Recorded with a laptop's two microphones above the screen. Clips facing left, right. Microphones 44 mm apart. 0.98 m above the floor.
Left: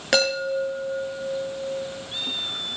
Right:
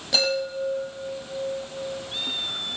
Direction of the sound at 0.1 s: 85° left.